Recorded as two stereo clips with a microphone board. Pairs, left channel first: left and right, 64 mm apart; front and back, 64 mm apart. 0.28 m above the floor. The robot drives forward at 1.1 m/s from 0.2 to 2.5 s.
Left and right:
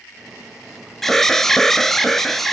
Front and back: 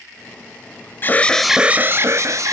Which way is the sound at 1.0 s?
10° left.